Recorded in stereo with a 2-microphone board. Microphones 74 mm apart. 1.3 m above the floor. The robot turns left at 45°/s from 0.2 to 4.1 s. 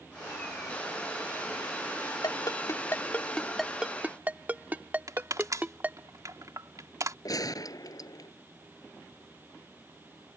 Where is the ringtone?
60° left (ahead or behind); by 6.1 s 25° right (ahead or behind).